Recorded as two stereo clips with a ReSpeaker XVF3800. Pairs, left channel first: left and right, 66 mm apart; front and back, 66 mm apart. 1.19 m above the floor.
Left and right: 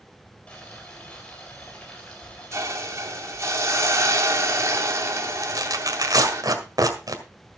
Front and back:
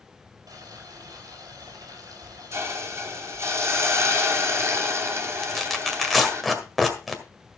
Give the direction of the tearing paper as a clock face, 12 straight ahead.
3 o'clock.